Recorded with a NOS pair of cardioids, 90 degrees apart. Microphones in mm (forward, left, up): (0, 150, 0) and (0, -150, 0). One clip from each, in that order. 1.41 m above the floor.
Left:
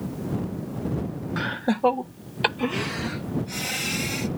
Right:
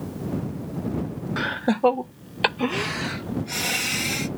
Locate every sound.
1.4 s laughter: 15° right; by 4.3 s 40° right